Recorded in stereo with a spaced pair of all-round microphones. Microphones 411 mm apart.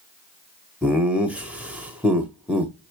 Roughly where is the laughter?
Centre.